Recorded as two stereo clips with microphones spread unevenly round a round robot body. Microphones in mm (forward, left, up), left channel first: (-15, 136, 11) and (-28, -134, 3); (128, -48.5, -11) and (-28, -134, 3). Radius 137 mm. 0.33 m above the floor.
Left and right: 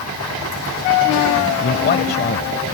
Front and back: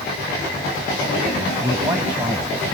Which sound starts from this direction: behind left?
A man speaking, at 1.6 s.